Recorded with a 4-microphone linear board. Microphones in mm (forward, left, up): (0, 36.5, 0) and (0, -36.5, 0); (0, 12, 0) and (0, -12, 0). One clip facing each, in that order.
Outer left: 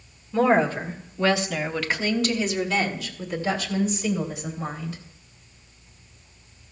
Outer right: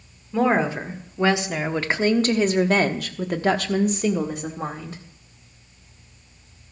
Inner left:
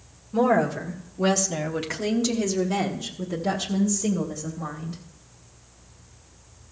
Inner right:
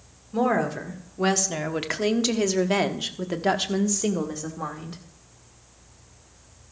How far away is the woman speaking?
About 1.7 m.